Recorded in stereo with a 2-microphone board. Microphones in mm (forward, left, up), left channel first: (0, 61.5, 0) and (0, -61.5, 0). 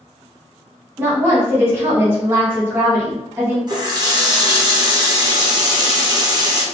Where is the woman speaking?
20° right (ahead or behind), 1.0 m.